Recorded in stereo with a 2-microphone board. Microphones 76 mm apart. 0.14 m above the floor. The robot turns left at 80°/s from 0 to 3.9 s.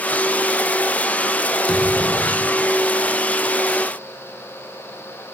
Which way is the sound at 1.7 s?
10° left.